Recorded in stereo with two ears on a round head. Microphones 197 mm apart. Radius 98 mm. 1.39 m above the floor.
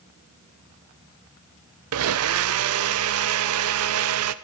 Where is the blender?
70° right (ahead or behind), 0.5 m.